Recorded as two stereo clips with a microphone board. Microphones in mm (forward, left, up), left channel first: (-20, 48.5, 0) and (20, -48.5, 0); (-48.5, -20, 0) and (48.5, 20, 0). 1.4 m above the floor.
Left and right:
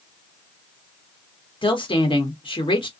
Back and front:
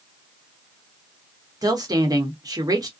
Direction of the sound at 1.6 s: 75° left.